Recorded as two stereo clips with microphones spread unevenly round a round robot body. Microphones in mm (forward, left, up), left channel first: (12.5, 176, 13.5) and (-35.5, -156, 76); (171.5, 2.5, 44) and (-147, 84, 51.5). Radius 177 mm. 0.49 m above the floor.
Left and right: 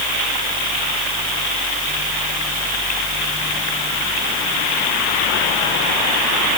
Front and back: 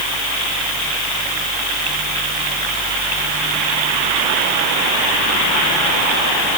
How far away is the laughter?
I don't hear laughter.